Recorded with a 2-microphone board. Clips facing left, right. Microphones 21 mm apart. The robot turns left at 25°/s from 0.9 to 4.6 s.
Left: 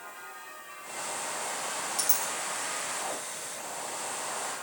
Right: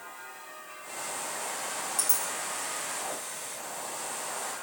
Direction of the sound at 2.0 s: 35° left (ahead or behind).